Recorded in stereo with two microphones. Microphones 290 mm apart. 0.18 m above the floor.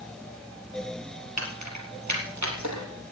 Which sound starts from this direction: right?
Keys jangling, at 1.4 s.